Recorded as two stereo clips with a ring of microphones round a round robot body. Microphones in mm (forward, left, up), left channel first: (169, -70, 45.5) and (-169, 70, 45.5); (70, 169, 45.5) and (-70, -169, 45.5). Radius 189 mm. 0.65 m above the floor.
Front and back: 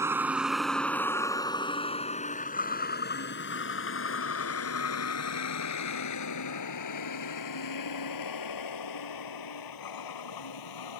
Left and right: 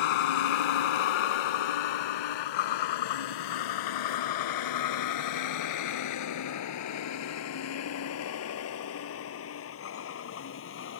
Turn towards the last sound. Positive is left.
turn(degrees=10)